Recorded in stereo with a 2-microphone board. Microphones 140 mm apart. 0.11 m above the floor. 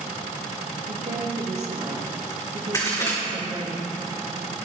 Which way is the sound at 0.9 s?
55° right (ahead or behind).